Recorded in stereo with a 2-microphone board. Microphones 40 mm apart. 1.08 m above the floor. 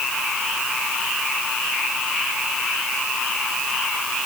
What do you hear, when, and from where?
Only background noise.